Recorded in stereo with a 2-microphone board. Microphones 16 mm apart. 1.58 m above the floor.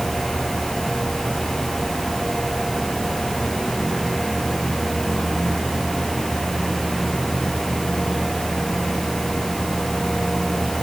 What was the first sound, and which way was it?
Only background noise.